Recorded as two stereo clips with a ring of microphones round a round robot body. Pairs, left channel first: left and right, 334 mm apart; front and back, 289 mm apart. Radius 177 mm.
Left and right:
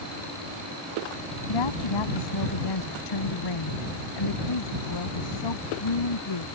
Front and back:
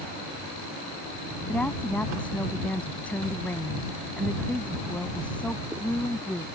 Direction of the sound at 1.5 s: 85° left.